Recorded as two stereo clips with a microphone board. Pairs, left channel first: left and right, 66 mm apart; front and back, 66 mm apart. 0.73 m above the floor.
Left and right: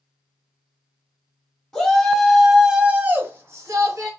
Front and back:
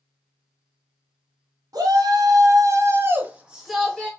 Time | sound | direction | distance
1.7 | a shout | 170° left | 1.0 m